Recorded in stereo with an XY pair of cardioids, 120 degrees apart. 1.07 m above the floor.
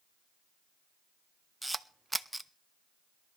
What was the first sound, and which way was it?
A camera shutter, 10° right.